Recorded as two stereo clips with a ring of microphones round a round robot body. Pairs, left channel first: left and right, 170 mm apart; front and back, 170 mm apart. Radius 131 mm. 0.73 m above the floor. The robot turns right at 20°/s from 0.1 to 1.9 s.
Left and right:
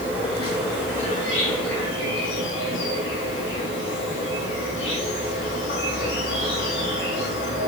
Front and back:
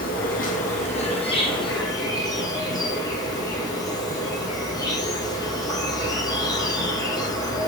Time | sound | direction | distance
0.0 | an insect | 30° left | 3 m